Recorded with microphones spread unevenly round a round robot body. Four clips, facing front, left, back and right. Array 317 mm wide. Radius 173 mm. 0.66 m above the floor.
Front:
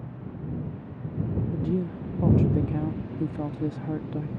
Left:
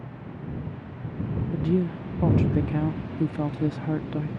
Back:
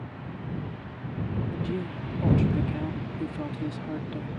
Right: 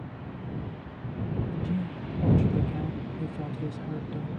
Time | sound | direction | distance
1.5 | a woman speaking | 95° left | ?